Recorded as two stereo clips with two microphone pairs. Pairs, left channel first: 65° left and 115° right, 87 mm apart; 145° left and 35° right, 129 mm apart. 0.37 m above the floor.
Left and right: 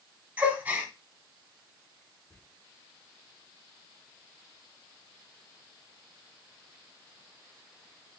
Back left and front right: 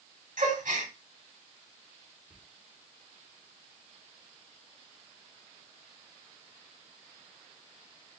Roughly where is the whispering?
Ahead.